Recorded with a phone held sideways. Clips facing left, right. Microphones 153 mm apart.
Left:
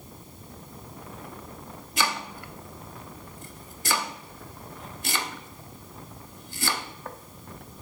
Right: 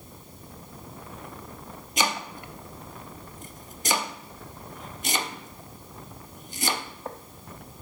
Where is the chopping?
20° right (ahead or behind), 0.6 m.